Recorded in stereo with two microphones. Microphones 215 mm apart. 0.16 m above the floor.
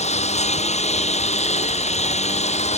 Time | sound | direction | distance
0.0 | a lawn mower | 30° left (ahead or behind) | ?